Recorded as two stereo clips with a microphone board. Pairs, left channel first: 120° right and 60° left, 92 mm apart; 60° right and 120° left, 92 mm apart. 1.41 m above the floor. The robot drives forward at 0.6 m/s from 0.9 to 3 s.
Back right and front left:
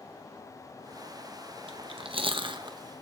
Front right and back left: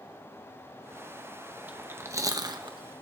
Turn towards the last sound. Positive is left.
turn(degrees=105)